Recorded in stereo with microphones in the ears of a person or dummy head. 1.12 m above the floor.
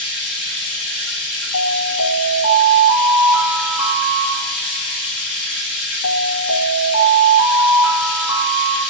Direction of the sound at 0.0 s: 70° left (ahead or behind).